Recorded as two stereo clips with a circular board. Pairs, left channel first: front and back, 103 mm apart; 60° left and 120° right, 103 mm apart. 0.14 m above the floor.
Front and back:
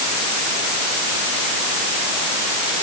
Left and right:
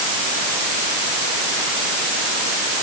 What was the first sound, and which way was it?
Only background noise.